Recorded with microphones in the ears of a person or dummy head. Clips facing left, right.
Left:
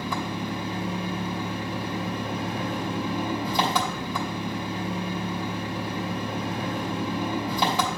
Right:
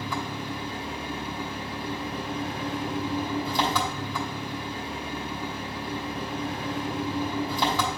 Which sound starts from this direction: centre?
An engine running, at 0.0 s.